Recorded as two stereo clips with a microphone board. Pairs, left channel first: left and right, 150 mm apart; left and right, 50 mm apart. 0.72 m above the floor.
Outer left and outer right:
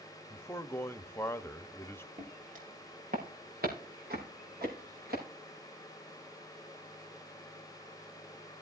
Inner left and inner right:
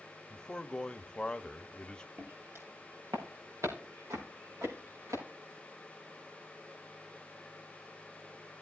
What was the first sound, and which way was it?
A man speaking, 15° left (ahead or behind).